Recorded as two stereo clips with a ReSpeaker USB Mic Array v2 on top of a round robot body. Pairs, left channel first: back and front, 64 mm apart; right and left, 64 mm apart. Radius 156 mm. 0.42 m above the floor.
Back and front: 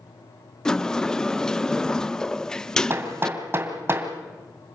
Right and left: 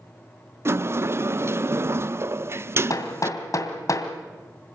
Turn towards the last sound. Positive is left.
turn(degrees=-50)